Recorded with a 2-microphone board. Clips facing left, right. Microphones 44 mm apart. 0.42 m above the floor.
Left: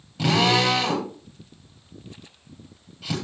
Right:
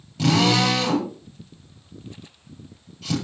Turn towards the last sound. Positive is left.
turn(degrees=5)  # may be behind; listen again after turning